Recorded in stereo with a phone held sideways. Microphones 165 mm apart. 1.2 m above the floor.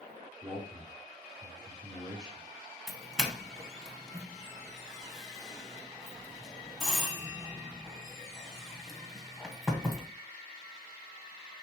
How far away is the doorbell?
About 1.2 m.